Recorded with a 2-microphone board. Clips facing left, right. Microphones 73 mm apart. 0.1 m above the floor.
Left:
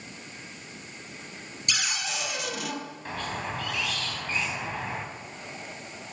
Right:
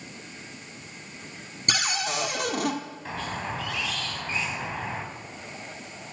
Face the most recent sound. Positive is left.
turn(degrees=0)  # may be behind; listen again after turning